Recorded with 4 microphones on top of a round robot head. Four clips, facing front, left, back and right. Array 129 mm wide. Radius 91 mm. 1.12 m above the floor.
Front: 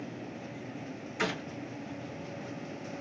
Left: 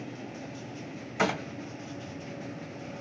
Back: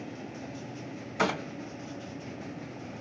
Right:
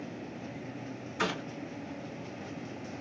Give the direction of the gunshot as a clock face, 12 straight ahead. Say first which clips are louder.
Left 5 dB, back 5 dB; 8 o'clock.